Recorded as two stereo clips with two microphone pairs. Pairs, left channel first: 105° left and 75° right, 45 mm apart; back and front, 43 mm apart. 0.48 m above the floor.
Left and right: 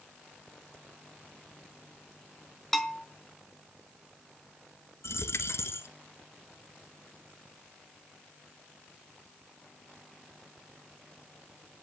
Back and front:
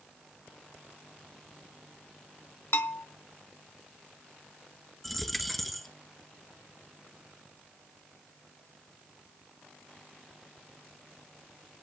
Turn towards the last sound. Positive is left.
turn(degrees=90)